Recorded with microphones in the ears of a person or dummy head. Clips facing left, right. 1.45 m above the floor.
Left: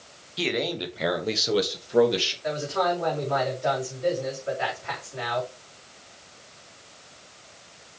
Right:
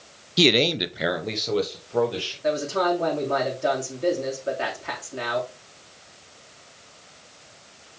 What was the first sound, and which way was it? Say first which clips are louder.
A man speaking: right 7 dB; 60° right (ahead or behind).